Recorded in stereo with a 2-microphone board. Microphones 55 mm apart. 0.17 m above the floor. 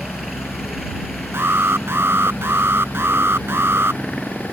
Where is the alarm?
45° right (ahead or behind).